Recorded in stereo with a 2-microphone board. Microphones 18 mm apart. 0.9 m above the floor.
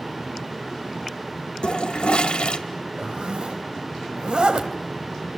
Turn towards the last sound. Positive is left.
turn(degrees=-70)  # may be behind; listen again after turning